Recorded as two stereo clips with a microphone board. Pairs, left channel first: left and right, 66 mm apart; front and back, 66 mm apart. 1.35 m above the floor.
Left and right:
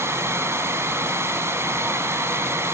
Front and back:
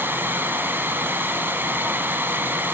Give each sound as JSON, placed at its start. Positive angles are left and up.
{"t": 0.0, "sound": "running water", "azimuth_deg": -125, "distance_m": 2.0}